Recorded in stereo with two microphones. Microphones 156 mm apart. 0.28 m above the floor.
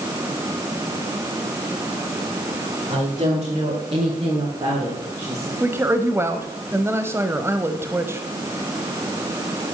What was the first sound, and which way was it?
A woman speaking, 45° right (ahead or behind).